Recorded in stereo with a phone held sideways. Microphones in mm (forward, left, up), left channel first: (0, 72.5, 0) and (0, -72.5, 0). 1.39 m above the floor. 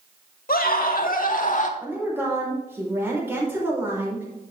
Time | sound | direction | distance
0.5 | a scream | 85° left | 2.5 m
1.8 | a woman speaking | 15° right (ahead or behind) | 5 m